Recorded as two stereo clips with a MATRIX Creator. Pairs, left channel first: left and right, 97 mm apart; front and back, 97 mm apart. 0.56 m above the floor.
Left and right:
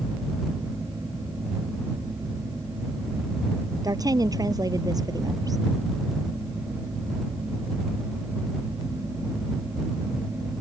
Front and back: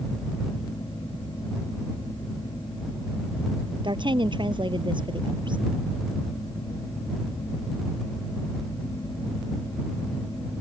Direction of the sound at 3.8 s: 140° right.